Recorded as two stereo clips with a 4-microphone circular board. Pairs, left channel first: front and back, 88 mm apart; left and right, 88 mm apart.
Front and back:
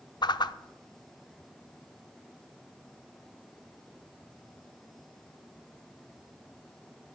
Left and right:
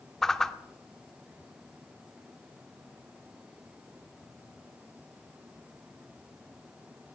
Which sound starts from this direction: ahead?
A whoosh, at 0.2 s.